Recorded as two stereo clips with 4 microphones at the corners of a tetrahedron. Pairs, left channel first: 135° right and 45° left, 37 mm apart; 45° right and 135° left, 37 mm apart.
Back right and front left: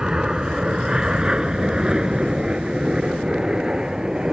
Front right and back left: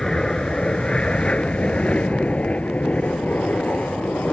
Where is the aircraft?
Straight ahead; by 4.3 s 25° right.